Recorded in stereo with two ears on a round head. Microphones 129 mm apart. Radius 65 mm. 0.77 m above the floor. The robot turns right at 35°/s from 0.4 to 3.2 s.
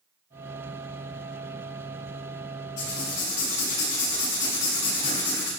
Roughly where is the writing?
Left.